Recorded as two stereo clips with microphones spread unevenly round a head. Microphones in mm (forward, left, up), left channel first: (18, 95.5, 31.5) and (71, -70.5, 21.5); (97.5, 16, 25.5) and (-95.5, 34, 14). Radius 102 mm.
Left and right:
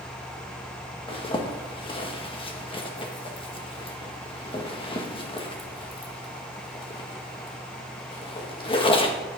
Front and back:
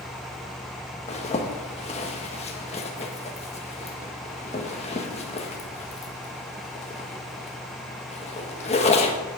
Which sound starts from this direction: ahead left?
A zipper, at 1.1 s.